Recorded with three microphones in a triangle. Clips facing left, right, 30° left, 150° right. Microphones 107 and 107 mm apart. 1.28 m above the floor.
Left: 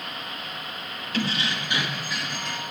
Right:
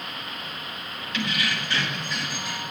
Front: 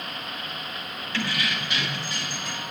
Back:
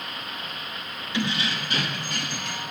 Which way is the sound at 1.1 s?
140° left.